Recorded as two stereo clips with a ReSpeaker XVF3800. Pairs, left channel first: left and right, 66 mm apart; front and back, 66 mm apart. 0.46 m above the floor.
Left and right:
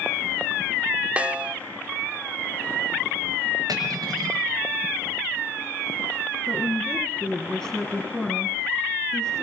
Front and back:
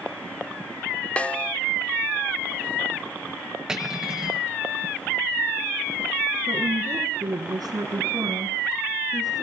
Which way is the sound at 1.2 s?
45° right.